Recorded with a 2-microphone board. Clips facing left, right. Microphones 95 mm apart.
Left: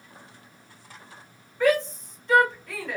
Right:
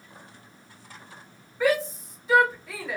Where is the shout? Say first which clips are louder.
Left 2 dB; 5° right (ahead or behind), 1.5 m.